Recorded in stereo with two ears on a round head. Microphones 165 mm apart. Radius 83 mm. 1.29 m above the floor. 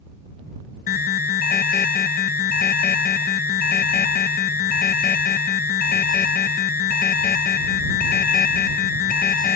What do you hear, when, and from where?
0.9 s an alarm: 50° left (ahead or behind)